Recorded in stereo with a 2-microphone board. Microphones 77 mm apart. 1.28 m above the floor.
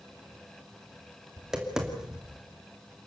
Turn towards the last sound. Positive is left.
turn(degrees=-10)  # may be behind; listen again after turning